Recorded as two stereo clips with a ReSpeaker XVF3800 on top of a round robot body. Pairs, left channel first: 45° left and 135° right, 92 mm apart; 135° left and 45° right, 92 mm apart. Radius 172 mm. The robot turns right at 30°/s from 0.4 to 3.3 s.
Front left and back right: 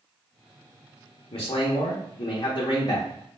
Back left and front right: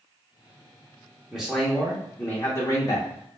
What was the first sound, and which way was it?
A man speaking, 35° left.